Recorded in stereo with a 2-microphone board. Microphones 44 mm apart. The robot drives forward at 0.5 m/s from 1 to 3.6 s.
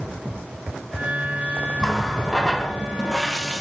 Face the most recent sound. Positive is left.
turn(degrees=5)  # may be behind; listen again after turning